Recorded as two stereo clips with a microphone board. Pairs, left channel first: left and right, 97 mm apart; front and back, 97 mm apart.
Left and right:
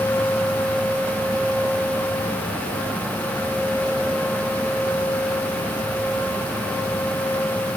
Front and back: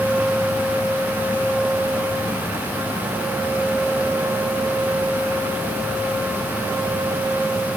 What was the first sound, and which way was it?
Only background noise.